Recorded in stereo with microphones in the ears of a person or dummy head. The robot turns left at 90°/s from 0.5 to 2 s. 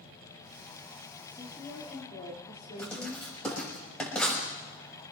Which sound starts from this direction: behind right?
A woman speaking, at 1.3 s.